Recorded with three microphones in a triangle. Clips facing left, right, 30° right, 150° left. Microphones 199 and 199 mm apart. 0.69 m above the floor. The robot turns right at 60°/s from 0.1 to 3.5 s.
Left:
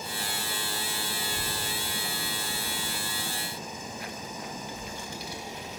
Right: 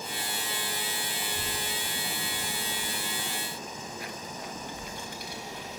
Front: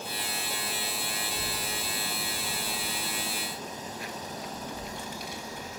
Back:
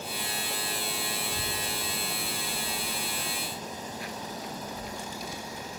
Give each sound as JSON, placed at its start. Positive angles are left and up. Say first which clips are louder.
{"t": 1.2, "sound": "a child speaking", "louder": "left 1 dB, back 1 dB", "azimuth_deg": 165, "distance_m": 1.8}